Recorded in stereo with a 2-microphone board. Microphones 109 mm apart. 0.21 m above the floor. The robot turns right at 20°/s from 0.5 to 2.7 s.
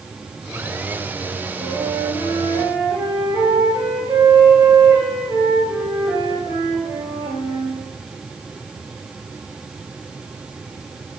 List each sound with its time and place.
1.6 s a flute: 40° right (ahead or behind), 4 m; by 7.8 s 20° right (ahead or behind), 4 m